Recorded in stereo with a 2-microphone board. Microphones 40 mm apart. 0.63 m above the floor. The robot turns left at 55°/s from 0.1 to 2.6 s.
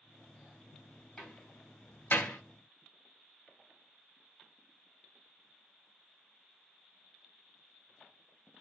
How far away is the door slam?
About 2.5 m.